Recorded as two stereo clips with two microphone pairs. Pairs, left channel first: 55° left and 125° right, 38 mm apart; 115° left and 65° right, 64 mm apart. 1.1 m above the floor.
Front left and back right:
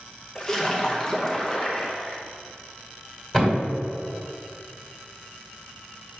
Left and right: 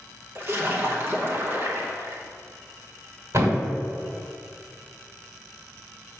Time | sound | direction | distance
0.3 | a splash | 15° right | 0.8 m
3.3 | a thud | 30° right | 1.9 m